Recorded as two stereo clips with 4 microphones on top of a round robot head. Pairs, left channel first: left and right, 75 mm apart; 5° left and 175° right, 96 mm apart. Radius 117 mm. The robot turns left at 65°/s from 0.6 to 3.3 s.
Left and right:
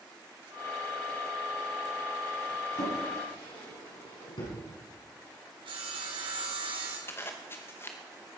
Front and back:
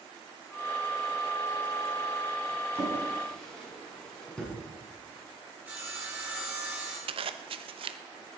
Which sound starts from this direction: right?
Sawing, at 5.7 s.